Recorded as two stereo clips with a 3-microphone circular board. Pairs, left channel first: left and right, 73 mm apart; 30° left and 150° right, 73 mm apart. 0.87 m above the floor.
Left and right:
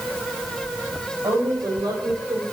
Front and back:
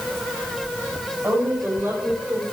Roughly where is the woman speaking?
Right.